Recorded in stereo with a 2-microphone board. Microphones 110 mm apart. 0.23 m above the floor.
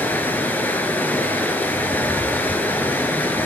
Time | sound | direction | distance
0.0 | running water | 15° left (ahead or behind) | 1.6 m